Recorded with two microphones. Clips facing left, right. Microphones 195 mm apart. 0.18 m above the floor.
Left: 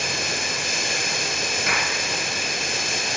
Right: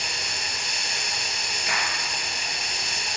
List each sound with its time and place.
0.0 s running water: 70° left (ahead or behind), 0.9 m
1.7 s a clap: 70° left (ahead or behind), 3 m